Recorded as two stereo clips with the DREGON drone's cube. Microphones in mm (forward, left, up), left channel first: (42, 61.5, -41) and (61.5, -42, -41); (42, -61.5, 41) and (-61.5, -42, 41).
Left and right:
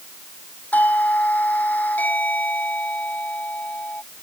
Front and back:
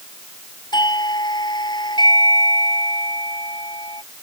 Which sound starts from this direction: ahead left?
A doorbell, at 0.7 s.